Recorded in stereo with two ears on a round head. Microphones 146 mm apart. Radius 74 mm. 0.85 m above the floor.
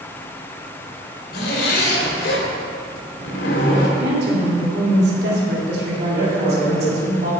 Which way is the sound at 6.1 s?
55° right (ahead or behind).